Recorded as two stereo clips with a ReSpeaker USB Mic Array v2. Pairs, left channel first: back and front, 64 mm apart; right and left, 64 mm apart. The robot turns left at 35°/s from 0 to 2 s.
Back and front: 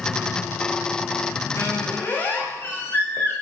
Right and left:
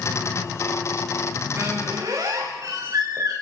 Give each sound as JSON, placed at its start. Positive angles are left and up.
{"t": 1.6, "sound": "a squeak", "azimuth_deg": 135, "distance_m": 5.5}